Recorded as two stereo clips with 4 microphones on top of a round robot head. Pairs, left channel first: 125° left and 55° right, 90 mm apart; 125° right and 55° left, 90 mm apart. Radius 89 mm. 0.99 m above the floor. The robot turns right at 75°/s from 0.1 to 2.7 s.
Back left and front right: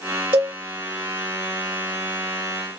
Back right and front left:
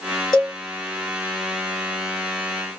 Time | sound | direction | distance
0.3 | a cowbell | 80° right | 0.9 m